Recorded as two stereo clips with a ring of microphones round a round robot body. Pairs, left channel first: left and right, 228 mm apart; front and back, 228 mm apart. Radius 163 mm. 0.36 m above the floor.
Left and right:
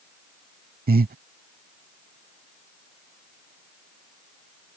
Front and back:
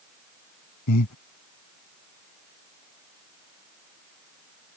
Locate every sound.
0.9 s breathing: 35° right